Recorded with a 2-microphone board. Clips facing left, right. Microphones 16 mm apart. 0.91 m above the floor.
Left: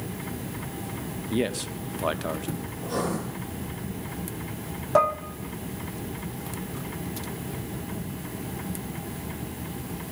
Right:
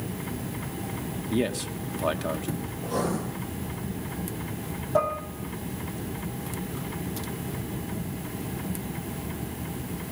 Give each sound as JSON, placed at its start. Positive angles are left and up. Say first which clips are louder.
{"t": 1.3, "sound": "a man speaking", "louder": "even", "side_deg": 5, "distance_m": 0.7}
{"t": 2.8, "sound": "writing", "louder": "even", "side_deg": 55, "distance_m": 8.5}
{"t": 5.0, "sound": "dishes clattering", "louder": "left 4 dB", "side_deg": 55, "distance_m": 1.2}